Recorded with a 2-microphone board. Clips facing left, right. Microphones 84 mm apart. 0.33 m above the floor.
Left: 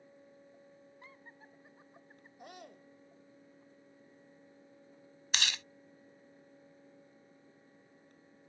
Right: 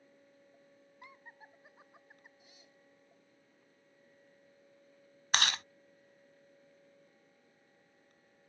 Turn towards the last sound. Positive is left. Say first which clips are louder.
# right 5 dB
turn(degrees=-50)  # may be behind; listen again after turning